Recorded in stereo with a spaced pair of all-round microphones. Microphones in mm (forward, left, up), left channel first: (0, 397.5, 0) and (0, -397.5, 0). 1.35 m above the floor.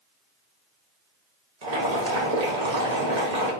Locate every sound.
1.6 s boiling: 70° right (ahead or behind), 1.3 m